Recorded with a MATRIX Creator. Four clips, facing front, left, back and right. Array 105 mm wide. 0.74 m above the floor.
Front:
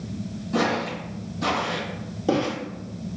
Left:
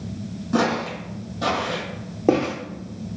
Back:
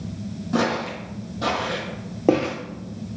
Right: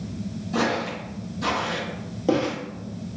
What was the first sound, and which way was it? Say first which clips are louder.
Footsteps: left 3 dB, back 1 dB; 125° left.